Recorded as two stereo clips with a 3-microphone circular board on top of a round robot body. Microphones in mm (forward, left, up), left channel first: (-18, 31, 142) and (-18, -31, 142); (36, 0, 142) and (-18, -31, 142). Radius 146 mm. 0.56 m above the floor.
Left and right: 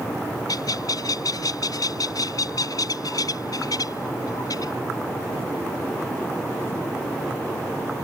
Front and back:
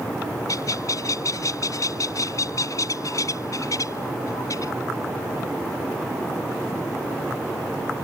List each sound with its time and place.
0.5 s a bird: 65° left